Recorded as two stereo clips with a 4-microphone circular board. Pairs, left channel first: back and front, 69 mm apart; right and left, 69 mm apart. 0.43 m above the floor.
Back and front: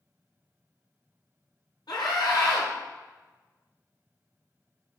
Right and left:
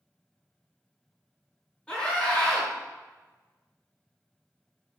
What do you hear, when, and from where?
1.9 s a scream: 165° right, 6.5 m